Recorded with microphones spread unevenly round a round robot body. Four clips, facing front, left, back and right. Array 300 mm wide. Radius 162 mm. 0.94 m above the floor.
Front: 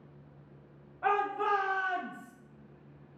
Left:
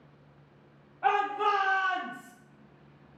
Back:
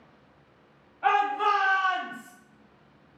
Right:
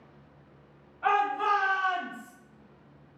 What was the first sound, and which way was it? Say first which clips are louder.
A shout: right 1 dB, back 6 dB; 10° left.